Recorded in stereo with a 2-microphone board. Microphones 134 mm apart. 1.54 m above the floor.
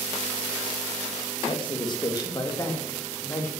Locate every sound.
1.5 s a woman speaking: 40° left (ahead or behind), 2.5 m; by 3.5 s 20° left (ahead or behind), 3 m